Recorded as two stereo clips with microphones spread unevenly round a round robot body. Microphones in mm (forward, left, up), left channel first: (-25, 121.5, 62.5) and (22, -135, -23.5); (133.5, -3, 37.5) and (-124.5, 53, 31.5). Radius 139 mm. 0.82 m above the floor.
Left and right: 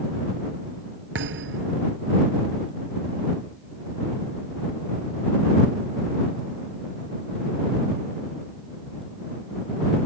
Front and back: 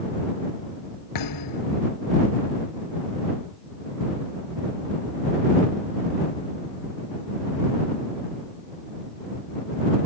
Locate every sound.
1.1 s a thud: 30° right